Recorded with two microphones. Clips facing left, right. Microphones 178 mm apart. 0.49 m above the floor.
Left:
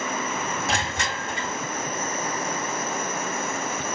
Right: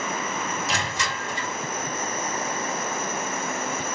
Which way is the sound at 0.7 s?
60° left (ahead or behind).